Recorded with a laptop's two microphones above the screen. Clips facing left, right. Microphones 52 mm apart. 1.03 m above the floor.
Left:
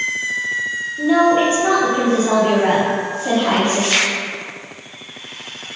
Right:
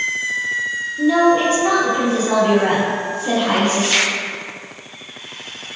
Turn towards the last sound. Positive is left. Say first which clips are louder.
# left 1 dB
turn(degrees=25)  # may be behind; listen again after turning